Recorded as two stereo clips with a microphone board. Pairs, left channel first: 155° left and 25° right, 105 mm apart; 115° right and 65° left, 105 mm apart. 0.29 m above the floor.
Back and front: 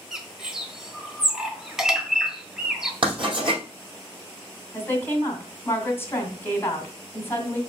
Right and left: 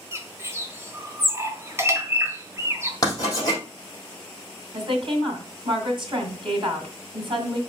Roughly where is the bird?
Ahead left.